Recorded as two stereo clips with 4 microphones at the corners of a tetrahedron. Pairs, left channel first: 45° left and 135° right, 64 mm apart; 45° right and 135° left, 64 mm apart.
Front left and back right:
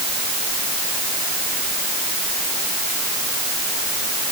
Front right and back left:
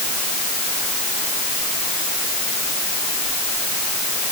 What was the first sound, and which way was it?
Only background noise.